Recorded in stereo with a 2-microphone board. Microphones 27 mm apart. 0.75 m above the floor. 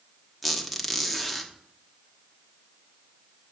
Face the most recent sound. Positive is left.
turn(degrees=0)  # may be behind; listen again after turning